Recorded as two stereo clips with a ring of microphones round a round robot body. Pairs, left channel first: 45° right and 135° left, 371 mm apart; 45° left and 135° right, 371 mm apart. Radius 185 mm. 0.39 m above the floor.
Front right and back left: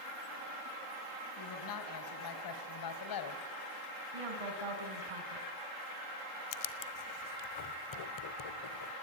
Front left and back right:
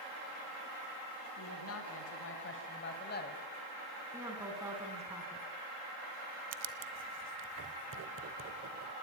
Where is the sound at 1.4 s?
5° right, 3 m; by 3.4 s 20° right, 1.9 m.